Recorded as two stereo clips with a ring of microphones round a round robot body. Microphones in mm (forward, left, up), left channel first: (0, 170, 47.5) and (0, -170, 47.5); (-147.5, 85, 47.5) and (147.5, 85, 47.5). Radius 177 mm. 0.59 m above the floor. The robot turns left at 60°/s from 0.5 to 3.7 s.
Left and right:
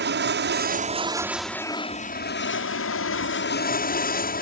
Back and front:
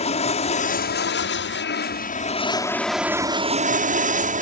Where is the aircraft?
125° right; by 4.4 s 45° left.